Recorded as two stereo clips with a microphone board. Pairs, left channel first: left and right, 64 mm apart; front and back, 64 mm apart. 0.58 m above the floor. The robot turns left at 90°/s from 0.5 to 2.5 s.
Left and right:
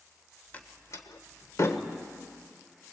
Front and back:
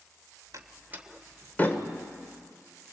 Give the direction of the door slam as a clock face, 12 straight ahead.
7 o'clock.